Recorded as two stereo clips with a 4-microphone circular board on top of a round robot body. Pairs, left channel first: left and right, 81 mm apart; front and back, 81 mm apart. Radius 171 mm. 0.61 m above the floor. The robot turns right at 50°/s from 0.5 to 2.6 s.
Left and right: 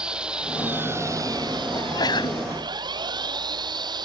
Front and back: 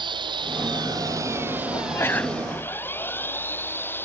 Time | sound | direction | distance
0.0 | an engine running | 170° right | ?
1.7 | a sneeze | 45° left | ?